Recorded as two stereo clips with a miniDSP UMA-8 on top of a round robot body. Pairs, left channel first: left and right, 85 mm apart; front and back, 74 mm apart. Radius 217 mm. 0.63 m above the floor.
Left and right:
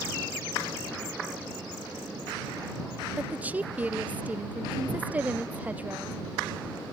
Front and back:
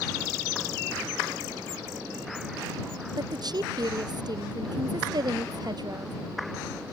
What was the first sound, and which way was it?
A woman speaking, 160° right.